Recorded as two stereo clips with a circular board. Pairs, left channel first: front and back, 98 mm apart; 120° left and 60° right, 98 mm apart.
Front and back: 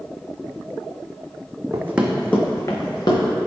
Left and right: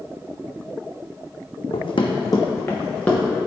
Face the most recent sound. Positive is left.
turn(degrees=40)